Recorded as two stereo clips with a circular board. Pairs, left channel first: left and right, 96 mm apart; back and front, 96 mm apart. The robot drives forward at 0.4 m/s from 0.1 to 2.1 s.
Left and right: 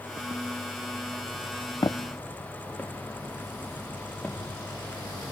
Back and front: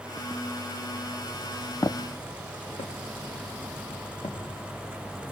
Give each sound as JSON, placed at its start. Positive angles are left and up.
{"t": 1.8, "sound": "footsteps", "azimuth_deg": 120, "distance_m": 0.6}